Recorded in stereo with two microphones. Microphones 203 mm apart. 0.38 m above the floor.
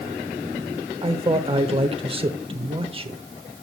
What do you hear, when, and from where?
1.0 s a man speaking: 25° right (ahead or behind), 0.9 m